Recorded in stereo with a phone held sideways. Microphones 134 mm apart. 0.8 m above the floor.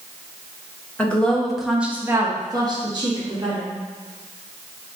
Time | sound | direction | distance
1.0 | a woman speaking | 10° left (ahead or behind) | 0.8 m